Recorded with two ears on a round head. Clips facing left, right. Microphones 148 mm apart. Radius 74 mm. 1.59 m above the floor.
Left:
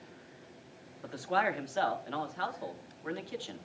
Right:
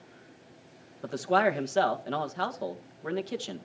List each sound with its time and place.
1.0 s a man speaking: 55° right (ahead or behind), 1.8 m